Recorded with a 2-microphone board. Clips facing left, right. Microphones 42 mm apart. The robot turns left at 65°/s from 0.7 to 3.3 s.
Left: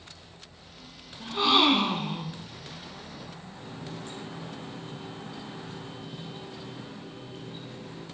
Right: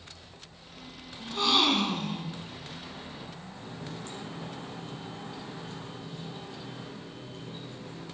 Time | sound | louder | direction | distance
1.2 | a gasp | left 3 dB | 15° left (ahead or behind) | 0.7 m
3.5 | a running tap | left 1 dB | 15° left (ahead or behind) | 3 m